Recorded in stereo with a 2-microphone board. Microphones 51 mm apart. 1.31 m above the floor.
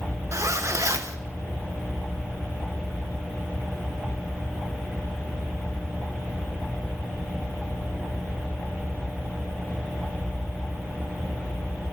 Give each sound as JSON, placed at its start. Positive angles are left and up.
{"t": 0.3, "sound": "a zipper", "side_deg": -70, "distance_m": 0.8}